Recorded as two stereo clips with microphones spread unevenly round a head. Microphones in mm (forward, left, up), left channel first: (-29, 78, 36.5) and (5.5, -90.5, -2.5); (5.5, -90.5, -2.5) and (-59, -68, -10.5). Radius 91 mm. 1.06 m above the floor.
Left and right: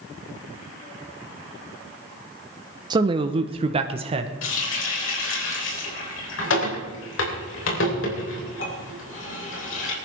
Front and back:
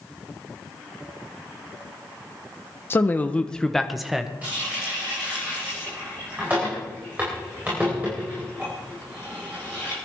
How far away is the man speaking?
About 0.6 m.